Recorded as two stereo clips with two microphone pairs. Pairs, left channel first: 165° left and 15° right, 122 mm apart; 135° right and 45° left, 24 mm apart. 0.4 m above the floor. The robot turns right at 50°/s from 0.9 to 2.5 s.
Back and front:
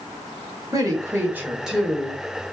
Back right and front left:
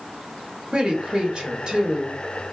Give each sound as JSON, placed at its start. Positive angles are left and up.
{"t": 0.7, "sound": "a woman speaking", "azimuth_deg": 30, "distance_m": 1.1}